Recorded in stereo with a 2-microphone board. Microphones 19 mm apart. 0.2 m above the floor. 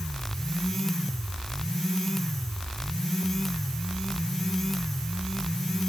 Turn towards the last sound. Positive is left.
No sound to turn to.